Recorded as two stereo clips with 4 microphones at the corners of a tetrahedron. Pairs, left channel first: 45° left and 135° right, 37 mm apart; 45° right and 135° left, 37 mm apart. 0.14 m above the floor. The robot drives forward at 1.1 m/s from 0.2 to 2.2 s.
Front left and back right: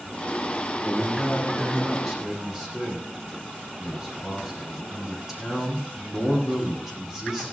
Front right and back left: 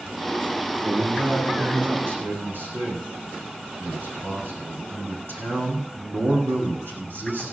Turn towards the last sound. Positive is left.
turn(degrees=145)